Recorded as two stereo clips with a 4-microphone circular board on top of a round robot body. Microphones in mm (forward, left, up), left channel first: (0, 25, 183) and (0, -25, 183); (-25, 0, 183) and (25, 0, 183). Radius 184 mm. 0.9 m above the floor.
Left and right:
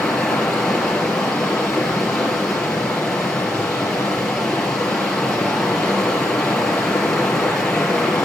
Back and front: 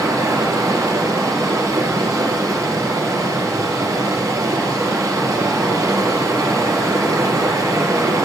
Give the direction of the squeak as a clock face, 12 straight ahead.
I don't hear a squeak.